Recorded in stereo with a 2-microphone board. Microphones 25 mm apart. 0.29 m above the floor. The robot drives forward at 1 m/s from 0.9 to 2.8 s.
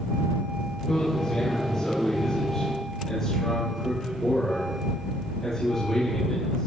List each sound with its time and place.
0.9 s a man speaking: 25° left (ahead or behind), 6 m; by 6.7 s 20° left (ahead or behind), 8 m